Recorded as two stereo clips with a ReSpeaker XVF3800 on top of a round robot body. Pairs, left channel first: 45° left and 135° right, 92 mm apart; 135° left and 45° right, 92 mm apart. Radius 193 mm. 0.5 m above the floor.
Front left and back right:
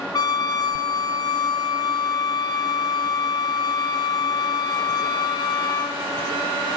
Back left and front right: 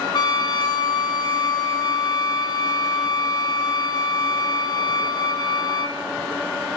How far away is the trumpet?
About 3.5 m.